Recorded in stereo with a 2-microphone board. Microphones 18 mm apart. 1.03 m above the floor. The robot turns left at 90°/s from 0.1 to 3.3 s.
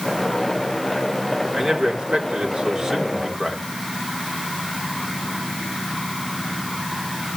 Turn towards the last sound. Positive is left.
turn(degrees=175)